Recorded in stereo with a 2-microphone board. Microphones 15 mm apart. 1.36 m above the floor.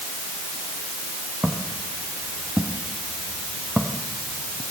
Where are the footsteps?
35° right (ahead or behind), 6 m; by 4.6 s 60° right (ahead or behind), 4.5 m.